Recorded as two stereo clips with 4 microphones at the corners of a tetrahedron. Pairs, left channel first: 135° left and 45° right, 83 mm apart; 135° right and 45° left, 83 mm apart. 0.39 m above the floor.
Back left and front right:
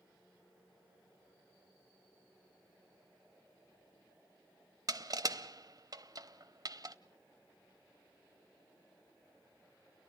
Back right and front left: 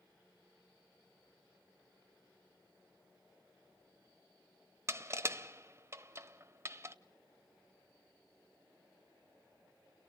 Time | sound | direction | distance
4.9 | crushing | 10° right | 0.8 m